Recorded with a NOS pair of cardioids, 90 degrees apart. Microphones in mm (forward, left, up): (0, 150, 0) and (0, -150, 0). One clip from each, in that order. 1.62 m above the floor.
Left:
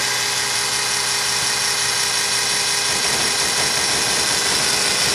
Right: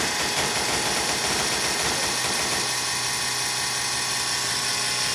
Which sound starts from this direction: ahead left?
A machine running, at 0.0 s.